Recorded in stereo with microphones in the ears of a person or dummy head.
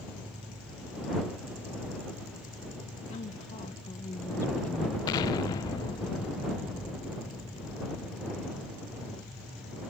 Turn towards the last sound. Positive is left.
turn(degrees=20)  # may be behind; listen again after turning